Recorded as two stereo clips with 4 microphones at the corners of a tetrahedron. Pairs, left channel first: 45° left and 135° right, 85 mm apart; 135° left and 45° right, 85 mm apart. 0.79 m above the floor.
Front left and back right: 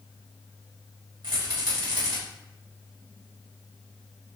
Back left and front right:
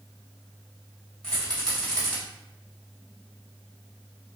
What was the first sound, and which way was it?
A rattle, 145° right.